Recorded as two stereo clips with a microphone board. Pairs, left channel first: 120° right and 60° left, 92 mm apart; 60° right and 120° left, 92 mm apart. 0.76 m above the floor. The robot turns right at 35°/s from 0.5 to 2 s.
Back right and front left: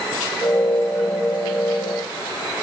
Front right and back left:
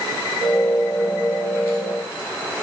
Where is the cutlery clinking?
No cutlery clinking in this recording.